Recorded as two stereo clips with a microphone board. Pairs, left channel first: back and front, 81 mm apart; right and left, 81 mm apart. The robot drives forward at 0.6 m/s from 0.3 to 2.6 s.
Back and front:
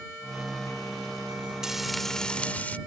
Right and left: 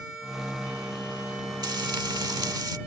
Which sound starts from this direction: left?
Frying, at 1.6 s.